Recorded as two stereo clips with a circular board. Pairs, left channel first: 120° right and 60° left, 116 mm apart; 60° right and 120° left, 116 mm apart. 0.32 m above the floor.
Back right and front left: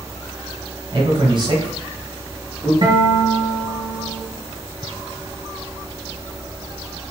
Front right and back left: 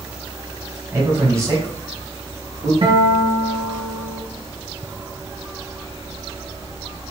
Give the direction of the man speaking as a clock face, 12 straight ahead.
10 o'clock.